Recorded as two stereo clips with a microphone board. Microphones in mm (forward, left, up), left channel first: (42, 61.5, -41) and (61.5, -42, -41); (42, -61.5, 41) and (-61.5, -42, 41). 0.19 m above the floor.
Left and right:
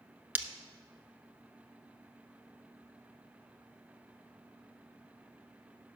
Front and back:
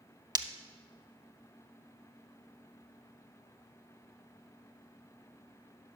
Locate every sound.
0.3 s breaking glass: 145° right, 0.5 m